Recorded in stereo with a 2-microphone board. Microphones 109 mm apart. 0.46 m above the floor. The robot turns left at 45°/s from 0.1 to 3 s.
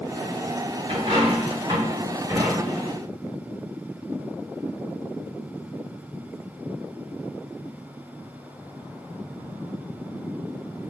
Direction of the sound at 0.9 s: 65° right (ahead or behind).